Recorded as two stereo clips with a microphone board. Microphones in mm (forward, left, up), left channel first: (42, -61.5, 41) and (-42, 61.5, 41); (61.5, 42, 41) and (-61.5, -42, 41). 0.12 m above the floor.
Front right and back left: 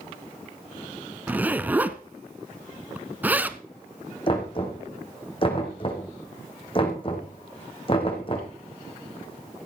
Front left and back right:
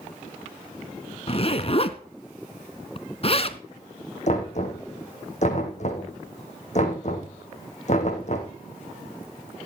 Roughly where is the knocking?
Ahead.